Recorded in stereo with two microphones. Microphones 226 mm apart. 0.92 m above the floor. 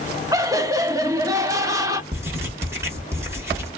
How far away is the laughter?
About 0.8 m.